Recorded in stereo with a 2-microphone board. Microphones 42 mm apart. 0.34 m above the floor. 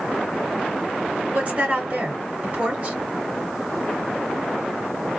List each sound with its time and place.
1.3 s a woman speaking: 45° right (ahead or behind), 1.8 m